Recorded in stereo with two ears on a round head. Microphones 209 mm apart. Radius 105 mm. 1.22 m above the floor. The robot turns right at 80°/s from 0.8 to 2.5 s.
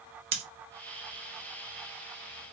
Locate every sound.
0.3 s scissors: 25° right (ahead or behind), 0.6 m